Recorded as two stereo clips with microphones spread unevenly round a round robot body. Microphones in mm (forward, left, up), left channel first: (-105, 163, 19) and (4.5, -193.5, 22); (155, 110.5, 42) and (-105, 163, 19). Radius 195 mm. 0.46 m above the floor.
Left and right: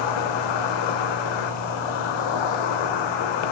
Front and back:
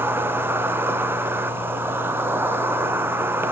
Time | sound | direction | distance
0.0 | an insect | 85° left | 0.8 m